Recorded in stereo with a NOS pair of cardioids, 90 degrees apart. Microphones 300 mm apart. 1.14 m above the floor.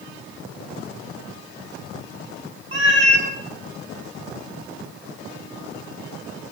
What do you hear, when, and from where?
2.7 s a cat meowing: 40° right, 2 m